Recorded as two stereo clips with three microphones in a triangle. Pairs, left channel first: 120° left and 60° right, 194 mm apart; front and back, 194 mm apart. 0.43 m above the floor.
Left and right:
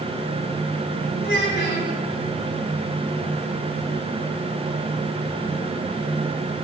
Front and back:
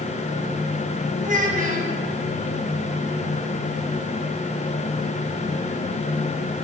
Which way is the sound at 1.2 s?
135° left.